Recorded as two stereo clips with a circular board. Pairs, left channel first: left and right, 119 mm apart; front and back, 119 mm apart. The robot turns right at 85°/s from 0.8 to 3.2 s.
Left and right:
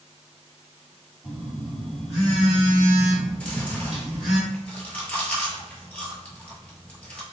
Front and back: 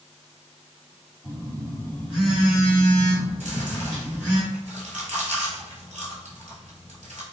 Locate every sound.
1.2 s a phone buzzing: 20° left, 1.6 m; by 4.4 s 175° right, 1.6 m
3.4 s chewing: 170° left, 1.0 m